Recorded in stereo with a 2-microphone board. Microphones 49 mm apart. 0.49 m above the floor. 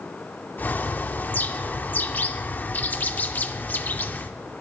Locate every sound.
0.6 s a bird: 40° left (ahead or behind), 0.5 m